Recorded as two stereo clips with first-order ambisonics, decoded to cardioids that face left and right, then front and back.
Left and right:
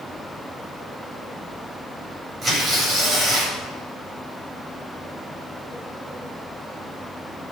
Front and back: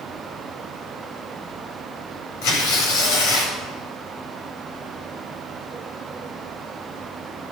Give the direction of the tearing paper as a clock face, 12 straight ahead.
1 o'clock.